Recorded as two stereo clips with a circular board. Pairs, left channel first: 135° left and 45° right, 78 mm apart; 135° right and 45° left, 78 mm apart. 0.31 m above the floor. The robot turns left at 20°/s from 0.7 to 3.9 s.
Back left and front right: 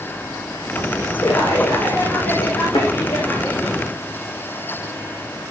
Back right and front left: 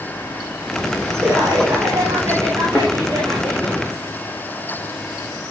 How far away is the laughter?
About 6 m.